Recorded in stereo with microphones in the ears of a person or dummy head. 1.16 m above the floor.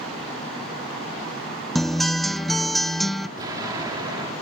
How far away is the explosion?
About 2.5 m.